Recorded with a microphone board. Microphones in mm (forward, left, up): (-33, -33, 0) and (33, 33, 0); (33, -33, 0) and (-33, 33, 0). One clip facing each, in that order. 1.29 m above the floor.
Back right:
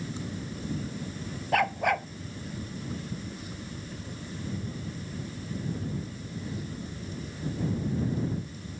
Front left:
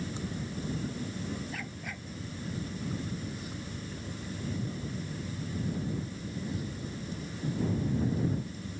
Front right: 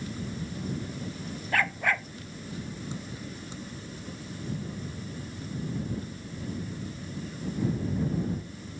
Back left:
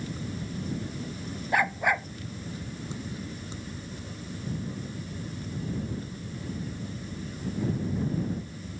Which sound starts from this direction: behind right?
A dog barking, at 1.5 s.